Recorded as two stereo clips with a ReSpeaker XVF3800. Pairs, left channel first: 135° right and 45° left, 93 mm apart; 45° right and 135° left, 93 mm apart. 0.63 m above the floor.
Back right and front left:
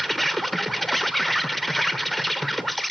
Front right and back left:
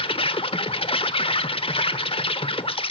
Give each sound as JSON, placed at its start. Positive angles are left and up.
{"t": 0.0, "sound": "an insect", "azimuth_deg": -45, "distance_m": 1.0}